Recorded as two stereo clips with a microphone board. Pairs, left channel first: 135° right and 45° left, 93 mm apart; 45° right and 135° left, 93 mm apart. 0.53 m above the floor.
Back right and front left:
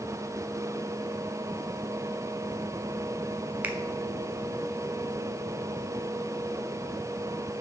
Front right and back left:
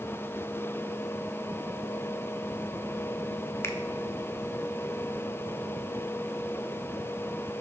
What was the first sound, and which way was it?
A finger snap, 10° right.